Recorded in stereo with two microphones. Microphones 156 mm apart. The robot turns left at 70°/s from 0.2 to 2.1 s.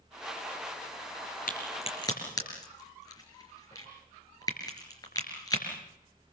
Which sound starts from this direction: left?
A crack, at 1.5 s.